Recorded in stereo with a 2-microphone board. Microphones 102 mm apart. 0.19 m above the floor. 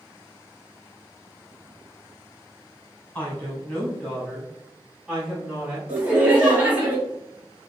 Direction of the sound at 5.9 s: 15° right (ahead or behind).